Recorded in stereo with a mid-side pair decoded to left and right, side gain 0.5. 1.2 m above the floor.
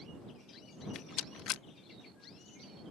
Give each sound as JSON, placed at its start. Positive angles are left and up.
{"t": 0.9, "sound": "a rattle", "azimuth_deg": 70}